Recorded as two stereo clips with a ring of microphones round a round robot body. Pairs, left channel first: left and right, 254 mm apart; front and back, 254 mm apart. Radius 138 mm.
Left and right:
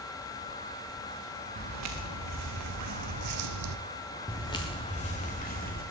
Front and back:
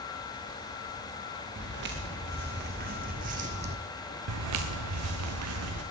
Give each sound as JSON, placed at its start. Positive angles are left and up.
{"t": 1.6, "sound": "footsteps", "azimuth_deg": -125, "distance_m": 2.5}
{"t": 4.3, "sound": "footsteps", "azimuth_deg": 170, "distance_m": 1.6}